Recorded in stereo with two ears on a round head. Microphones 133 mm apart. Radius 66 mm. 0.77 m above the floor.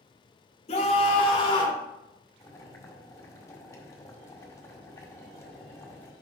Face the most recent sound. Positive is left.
turn(degrees=20)  # may be behind; listen again after turning